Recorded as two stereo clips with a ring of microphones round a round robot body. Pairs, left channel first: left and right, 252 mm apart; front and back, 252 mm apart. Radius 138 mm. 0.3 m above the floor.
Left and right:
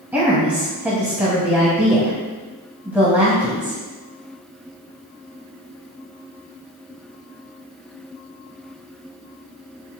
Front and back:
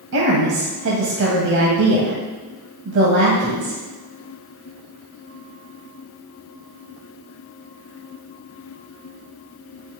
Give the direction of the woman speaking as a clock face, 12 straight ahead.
6 o'clock.